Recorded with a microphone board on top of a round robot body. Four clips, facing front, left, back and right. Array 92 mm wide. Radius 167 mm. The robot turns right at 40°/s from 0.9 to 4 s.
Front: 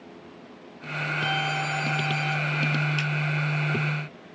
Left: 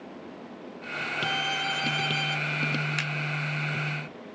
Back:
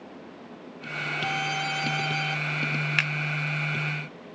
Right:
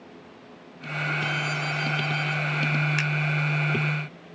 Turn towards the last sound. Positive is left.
turn(degrees=-120)